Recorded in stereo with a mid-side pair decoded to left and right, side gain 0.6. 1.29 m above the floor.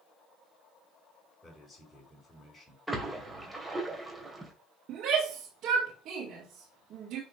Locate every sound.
1.4 s a man speaking: 20° left, 5 m
2.9 s a splash: 10° right, 2.5 m
4.9 s a shout: 55° right, 3 m